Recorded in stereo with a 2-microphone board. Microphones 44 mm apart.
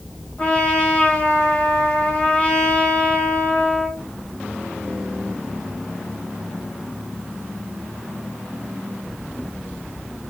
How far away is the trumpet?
About 0.9 m.